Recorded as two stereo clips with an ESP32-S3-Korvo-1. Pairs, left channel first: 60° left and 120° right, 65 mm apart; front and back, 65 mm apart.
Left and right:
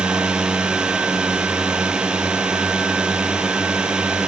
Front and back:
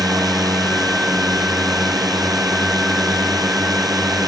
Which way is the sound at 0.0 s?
165° left.